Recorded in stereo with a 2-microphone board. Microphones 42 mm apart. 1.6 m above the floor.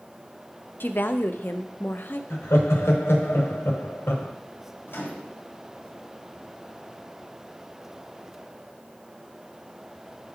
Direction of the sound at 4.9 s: 60° left (ahead or behind).